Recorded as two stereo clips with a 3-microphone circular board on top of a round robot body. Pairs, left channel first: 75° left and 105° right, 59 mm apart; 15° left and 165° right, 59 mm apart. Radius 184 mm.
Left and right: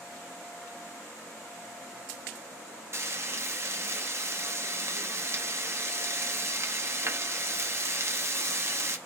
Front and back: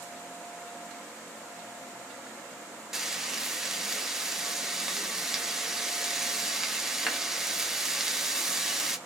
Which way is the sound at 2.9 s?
85° right.